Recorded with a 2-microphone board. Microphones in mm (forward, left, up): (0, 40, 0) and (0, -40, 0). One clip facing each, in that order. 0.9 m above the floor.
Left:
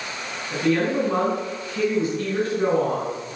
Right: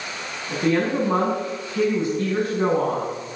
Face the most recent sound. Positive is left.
turn(degrees=-40)  # may be behind; listen again after turning